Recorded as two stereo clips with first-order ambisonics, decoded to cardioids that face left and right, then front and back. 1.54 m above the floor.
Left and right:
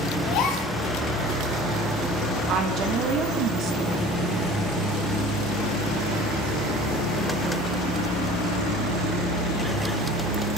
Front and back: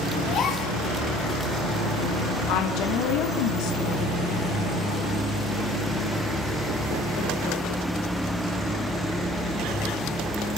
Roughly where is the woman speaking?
Ahead right.